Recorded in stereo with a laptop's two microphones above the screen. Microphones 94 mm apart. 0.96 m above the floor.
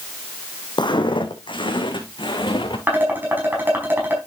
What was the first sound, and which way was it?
Footsteps, 55° left (ahead or behind).